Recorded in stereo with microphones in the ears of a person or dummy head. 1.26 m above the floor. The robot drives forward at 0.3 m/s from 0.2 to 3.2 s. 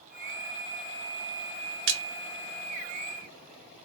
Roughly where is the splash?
Right.